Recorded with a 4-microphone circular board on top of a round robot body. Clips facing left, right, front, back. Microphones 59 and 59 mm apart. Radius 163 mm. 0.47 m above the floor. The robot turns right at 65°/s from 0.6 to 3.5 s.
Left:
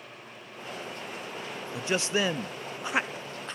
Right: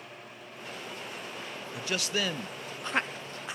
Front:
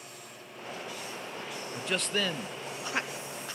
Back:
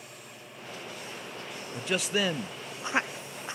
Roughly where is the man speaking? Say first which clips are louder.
Left 4 dB, back 2 dB; left.